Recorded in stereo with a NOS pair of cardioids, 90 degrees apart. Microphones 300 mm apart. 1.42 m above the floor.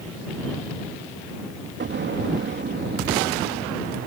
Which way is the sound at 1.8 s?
35° right.